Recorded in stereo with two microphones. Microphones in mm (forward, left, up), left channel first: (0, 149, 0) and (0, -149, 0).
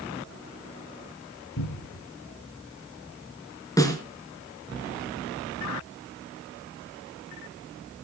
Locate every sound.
1.6 s a cupboard door: 80° left, 3.5 m
3.8 s a snare drum: 10° left (ahead or behind), 3.5 m